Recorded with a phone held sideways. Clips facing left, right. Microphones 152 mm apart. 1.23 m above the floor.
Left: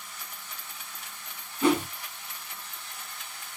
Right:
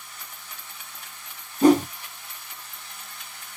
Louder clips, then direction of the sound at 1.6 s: Right 8 dB; 40° right (ahead or behind).